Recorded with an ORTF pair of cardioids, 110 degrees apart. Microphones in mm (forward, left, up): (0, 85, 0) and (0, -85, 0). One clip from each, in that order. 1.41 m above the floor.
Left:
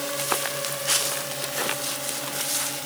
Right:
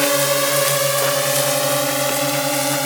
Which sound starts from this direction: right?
A drone, at 0.0 s.